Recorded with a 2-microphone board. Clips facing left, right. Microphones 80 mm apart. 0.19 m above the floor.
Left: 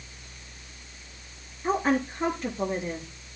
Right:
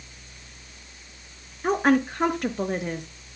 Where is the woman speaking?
65° right (ahead or behind), 3 m.